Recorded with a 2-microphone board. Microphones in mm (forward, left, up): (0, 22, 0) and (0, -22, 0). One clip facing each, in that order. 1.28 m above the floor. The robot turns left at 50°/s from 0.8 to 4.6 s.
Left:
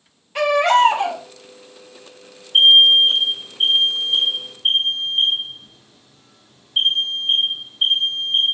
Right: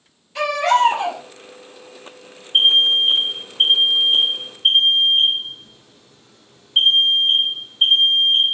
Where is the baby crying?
40° left (ahead or behind), 3.5 m; by 1.2 s 20° left (ahead or behind), 3.5 m.